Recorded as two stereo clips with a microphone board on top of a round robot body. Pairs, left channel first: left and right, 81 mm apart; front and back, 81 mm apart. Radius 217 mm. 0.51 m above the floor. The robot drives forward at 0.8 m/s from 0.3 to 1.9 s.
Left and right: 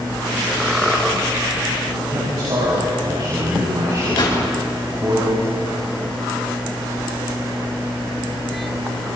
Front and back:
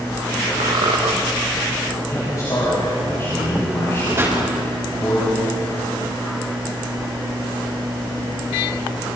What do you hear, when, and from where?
0.6 s a squeak: 175° right, 0.9 m
2.1 s a man speaking: 50° right, 6 m
4.2 s a pop: 120° left, 5 m